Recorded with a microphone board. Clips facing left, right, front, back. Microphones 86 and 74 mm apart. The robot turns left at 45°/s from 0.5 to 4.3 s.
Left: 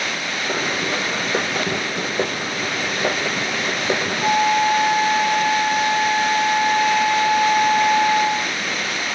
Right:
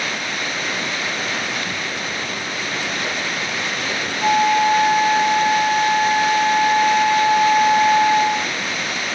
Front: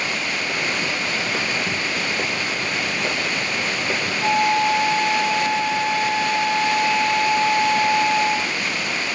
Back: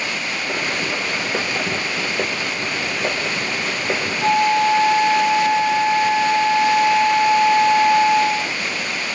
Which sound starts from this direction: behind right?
A flute, at 4.2 s.